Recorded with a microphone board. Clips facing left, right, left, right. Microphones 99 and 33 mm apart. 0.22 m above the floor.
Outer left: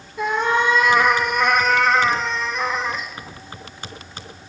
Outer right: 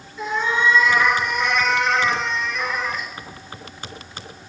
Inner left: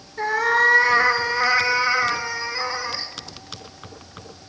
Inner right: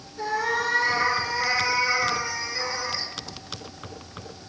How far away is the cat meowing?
About 1.7 m.